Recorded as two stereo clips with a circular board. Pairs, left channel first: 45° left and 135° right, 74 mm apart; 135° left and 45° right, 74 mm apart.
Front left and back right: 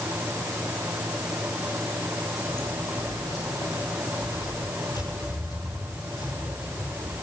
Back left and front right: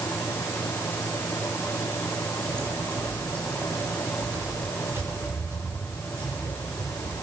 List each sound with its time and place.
2.5 s footsteps: 15° left, 8.5 m; by 7.2 s 10° left, 12.5 m